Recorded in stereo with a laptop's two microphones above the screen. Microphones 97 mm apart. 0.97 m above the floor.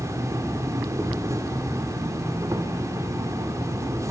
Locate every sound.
0.0 s an insect: 30° right (ahead or behind), 1.6 m